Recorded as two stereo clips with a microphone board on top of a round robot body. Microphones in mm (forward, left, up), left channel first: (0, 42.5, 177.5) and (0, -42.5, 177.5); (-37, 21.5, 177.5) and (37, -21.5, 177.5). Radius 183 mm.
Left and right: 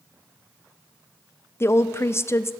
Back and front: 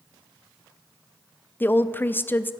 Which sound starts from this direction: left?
A woman speaking, at 1.6 s.